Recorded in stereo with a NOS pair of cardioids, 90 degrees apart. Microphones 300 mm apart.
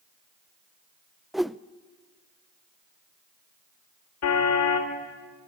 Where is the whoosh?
Straight ahead, 0.5 m.